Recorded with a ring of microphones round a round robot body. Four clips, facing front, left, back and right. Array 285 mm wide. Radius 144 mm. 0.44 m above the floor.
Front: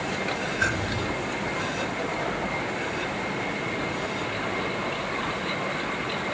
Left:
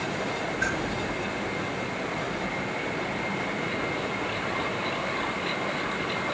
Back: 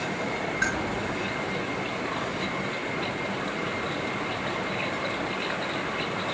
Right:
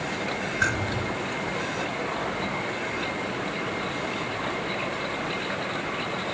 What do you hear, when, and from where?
0.6 s keys jangling: 80° right, 3 m